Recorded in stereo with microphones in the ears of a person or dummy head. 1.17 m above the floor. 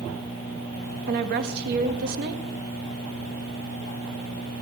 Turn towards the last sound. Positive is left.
turn(degrees=-50)  # may be behind; listen again after turning